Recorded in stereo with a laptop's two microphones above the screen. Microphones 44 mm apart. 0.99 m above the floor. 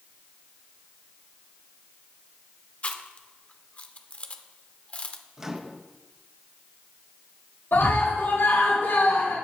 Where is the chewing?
35° left (ahead or behind), 0.7 m.